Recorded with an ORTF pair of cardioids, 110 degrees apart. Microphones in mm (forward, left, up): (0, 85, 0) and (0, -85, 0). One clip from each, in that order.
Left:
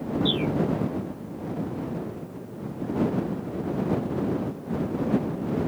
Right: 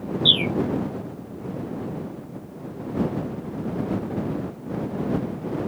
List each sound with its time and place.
0.2 s a bird: 60° right